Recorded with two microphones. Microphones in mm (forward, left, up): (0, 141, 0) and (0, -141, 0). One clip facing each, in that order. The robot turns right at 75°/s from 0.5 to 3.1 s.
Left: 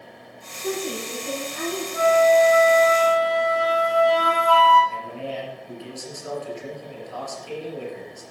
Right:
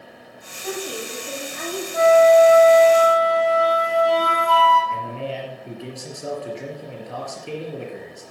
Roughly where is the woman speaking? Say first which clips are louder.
Left 2 dB; ahead left.